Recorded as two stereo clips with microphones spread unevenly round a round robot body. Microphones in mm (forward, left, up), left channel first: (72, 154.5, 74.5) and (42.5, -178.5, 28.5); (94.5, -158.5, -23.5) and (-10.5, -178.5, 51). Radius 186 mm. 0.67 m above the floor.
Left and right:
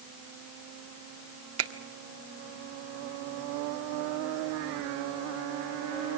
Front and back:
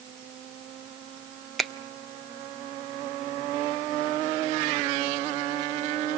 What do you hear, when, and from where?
1.6 s a finger snap: 60° right, 1.7 m